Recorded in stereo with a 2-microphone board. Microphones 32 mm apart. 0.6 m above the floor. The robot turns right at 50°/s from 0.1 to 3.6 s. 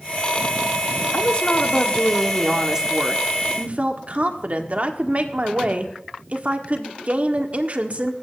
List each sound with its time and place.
1.1 s a woman speaking: 120° left, 1.5 m; by 8.1 s 115° right, 1.5 m